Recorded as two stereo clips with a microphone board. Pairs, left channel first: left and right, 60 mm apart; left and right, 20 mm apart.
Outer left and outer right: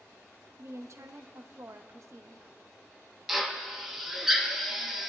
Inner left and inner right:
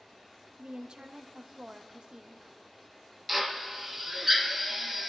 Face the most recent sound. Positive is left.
turn(degrees=-5)  # may be behind; listen again after turning